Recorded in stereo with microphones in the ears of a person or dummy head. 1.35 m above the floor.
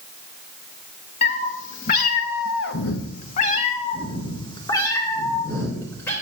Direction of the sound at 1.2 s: 40° left (ahead or behind).